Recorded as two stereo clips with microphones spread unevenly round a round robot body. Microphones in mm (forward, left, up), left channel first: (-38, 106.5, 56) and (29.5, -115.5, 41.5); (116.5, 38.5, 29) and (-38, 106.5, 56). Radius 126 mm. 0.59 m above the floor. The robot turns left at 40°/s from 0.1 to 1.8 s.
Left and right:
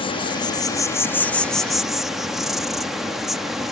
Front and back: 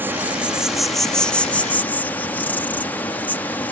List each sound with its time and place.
0.0 s an insect: 70° left; by 3.7 s 5° left